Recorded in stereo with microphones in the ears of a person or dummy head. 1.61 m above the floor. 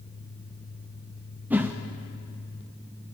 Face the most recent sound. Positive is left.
turn(degrees=-10)  # may be behind; listen again after turning